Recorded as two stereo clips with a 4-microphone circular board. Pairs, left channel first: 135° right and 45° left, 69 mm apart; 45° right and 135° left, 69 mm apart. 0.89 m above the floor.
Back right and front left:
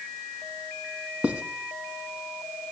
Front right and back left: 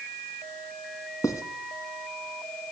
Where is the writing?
25° right, 1.5 m.